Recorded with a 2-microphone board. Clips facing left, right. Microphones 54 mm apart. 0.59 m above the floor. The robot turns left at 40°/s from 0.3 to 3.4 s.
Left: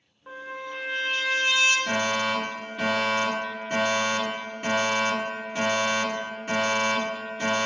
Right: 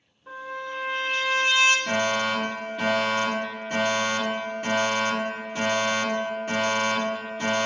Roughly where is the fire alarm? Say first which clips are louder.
Right 1 dB; centre.